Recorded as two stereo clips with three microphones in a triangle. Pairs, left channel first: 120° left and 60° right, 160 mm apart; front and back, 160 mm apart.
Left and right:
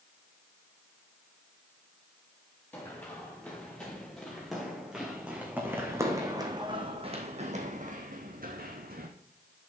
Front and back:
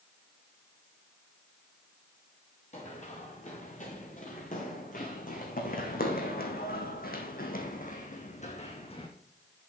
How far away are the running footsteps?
About 3 m.